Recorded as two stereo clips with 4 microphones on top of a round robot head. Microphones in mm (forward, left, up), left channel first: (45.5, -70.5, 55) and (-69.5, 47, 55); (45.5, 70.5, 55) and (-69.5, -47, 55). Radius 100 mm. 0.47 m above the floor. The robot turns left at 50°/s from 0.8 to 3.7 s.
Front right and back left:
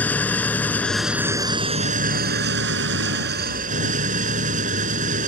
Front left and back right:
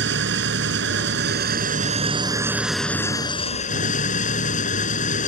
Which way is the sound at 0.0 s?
125° right.